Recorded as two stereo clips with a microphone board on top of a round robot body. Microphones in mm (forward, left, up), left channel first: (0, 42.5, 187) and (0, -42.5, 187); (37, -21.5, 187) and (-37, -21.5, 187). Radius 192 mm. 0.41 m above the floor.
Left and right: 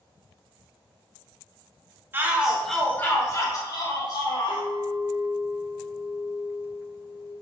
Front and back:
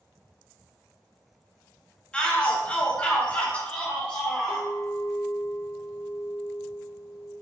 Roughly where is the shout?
Ahead right.